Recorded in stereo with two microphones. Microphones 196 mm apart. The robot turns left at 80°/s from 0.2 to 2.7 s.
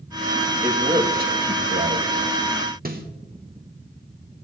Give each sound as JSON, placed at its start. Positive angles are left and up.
{"t": 0.6, "sound": "a man speaking", "azimuth_deg": -10, "distance_m": 1.8}
{"t": 2.9, "sound": "a snare drum", "side_deg": -50, "distance_m": 1.2}